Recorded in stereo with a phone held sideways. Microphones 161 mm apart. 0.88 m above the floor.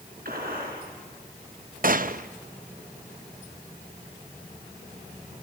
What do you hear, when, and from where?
0.2 s a gunshot: 65° right (ahead or behind), 4 m
1.8 s a gunshot: 60° right (ahead or behind), 0.5 m